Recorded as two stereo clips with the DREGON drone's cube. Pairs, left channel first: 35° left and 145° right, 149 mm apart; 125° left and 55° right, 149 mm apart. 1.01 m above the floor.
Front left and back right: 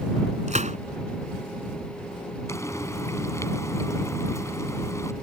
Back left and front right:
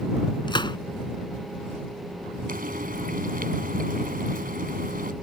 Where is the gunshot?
Straight behind.